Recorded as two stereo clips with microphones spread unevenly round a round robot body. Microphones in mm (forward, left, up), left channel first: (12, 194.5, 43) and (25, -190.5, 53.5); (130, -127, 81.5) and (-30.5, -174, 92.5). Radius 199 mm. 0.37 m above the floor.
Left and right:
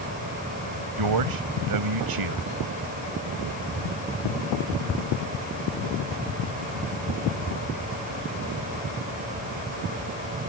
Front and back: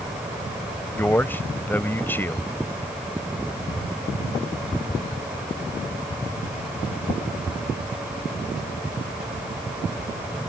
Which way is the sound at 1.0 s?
60° right.